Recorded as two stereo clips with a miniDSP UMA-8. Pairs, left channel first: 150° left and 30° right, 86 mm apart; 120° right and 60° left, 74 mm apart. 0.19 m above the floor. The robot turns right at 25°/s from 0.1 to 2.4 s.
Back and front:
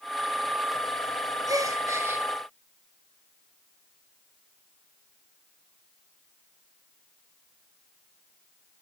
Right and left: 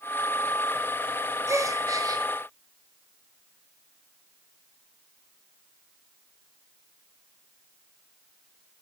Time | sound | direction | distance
1.5 | a gasp | 15° left | 0.9 m